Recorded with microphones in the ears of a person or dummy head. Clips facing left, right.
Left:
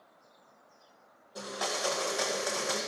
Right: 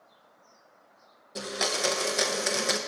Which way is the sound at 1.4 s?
25° right (ahead or behind).